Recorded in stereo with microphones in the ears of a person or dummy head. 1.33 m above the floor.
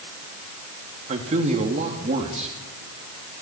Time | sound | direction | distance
1.1 | a man speaking | 40° right (ahead or behind) | 3 m